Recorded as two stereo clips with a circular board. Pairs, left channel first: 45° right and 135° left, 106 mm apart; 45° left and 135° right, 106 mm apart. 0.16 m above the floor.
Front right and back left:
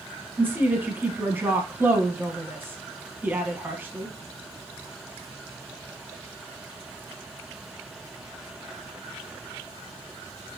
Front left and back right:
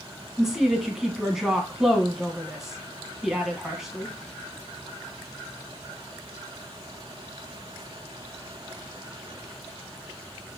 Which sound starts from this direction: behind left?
A woman speaking, at 0.4 s.